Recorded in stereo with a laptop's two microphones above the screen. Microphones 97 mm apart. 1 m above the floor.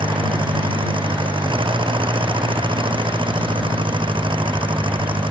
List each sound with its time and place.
0.0 s an engine running: 60° right (ahead or behind)